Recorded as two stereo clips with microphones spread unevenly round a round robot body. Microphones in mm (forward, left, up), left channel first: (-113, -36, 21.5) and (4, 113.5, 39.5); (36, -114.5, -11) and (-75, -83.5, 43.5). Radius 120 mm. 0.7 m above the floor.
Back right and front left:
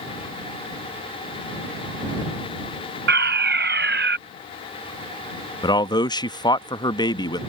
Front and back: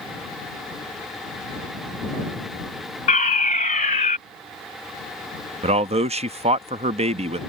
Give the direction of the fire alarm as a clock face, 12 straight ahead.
12 o'clock.